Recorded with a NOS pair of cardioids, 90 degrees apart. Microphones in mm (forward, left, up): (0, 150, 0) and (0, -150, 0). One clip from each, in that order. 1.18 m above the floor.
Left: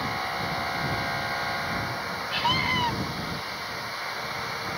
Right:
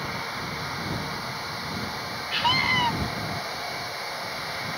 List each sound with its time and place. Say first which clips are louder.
2.3 s a scream: right 3 dB; 20° right